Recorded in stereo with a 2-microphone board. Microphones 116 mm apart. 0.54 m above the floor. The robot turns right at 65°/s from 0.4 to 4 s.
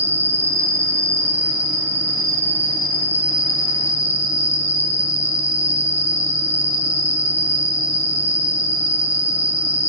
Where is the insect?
120° right, 0.8 m; by 9.9 s 115° left, 0.8 m.